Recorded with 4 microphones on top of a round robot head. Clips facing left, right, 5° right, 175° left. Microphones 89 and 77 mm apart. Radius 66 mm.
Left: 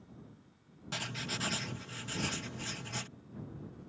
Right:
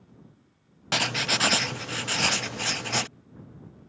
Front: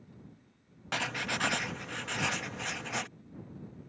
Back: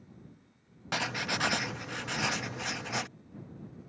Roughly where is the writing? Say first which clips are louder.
Right 13 dB, back 1 dB; right.